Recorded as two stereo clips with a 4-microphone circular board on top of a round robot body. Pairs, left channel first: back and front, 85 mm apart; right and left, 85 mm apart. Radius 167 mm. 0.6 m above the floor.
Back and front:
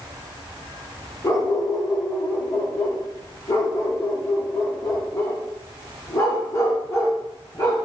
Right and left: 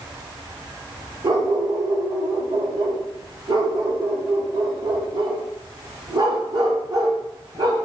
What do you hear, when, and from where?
1.2 s a dog barking: 125° left, 5.5 m